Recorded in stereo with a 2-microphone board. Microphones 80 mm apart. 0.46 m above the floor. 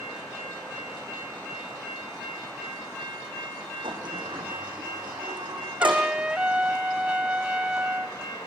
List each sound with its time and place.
3.8 s a sliding door: 85° right, 5.5 m
5.8 s a trumpet: 15° right (ahead or behind), 0.7 m